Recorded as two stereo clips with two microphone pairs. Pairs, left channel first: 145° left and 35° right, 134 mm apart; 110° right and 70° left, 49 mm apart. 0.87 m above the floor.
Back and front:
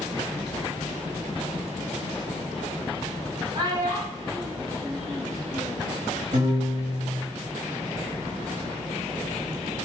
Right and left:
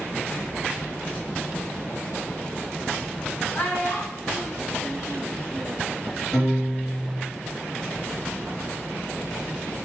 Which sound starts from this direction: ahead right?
A piano, at 6.3 s.